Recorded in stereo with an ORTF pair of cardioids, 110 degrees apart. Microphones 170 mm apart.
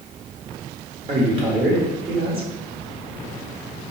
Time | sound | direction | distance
1.1 | a man speaking | 35° right | 1.5 m